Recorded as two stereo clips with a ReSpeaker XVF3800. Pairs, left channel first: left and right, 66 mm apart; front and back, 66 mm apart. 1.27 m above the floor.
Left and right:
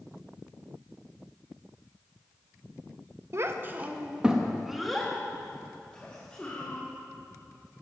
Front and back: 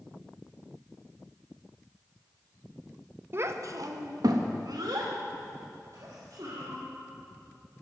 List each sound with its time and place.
3.3 s a child speaking: 130° right, 0.8 m; by 6.8 s 160° left, 2.5 m